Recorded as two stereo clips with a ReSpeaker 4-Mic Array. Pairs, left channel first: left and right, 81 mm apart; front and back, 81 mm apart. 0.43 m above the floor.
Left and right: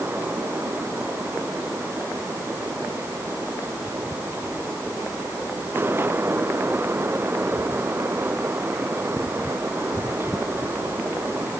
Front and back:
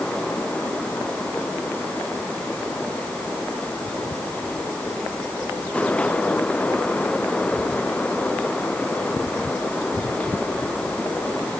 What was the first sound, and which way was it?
Only background noise.